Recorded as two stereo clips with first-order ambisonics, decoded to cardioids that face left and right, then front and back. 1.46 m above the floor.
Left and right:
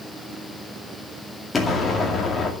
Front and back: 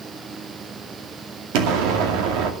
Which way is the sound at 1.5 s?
165° left.